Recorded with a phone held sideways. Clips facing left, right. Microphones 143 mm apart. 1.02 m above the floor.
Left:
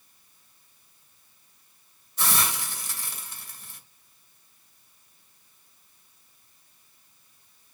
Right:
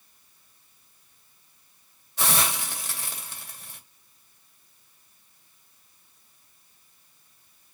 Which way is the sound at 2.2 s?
75° right (ahead or behind).